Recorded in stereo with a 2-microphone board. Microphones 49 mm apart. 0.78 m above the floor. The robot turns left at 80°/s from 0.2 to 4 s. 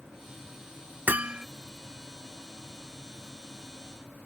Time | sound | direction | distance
1.1 | hammering | 140° right | ?